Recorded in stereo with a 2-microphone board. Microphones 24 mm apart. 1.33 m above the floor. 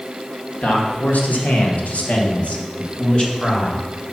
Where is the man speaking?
85° left, 1.8 m; by 4.1 s 20° left (ahead or behind), 2 m.